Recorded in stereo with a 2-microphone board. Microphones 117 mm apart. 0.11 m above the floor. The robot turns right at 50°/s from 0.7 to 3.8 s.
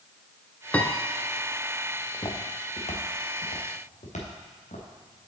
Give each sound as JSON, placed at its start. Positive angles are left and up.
{"t": 0.7, "sound": "a piano", "side_deg": 10, "distance_m": 0.5}
{"t": 2.1, "sound": "footsteps", "side_deg": 30, "distance_m": 1.5}